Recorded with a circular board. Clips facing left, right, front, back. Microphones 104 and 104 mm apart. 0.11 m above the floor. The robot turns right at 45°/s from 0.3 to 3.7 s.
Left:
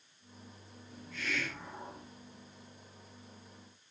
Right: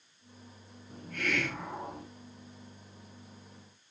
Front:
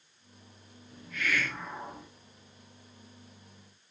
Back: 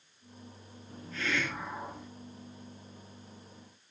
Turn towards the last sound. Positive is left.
turn(degrees=-10)